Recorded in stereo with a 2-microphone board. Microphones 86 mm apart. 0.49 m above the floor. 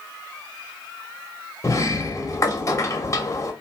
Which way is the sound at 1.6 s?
35° left (ahead or behind).